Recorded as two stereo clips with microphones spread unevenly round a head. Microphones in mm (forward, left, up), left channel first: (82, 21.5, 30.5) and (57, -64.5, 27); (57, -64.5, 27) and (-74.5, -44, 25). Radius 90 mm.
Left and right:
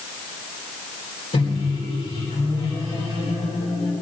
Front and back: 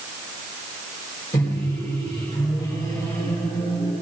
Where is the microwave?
60° left, 3.5 m.